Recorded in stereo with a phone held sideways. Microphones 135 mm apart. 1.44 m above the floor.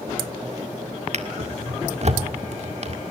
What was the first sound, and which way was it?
A drawer, 55° right (ahead or behind).